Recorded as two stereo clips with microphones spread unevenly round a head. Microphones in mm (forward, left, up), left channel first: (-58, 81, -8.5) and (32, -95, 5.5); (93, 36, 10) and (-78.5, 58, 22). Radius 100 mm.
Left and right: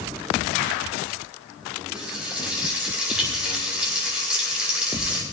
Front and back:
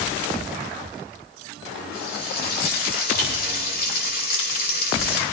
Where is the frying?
25° left, 6 m.